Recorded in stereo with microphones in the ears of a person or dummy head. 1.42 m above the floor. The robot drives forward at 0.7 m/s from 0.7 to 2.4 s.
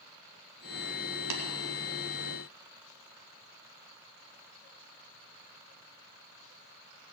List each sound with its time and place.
1.3 s tapping: 85° right, 2.5 m; by 1.4 s 80° right, 2.5 m